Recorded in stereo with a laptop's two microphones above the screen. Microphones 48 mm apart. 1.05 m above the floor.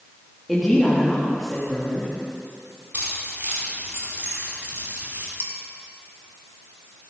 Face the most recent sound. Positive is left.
turn(degrees=-55)  # may be behind; listen again after turning